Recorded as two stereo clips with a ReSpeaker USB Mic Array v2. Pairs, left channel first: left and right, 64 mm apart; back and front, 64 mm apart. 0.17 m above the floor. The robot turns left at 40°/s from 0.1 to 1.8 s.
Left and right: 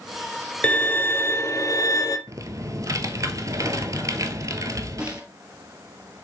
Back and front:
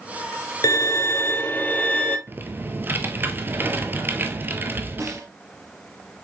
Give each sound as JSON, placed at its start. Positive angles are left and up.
{"t": 0.6, "sound": "a violin", "azimuth_deg": 160, "distance_m": 1.0}
{"t": 2.3, "sound": "typing on a keyboard", "azimuth_deg": -60, "distance_m": 0.9}
{"t": 5.0, "sound": "a snare drum", "azimuth_deg": -15, "distance_m": 1.8}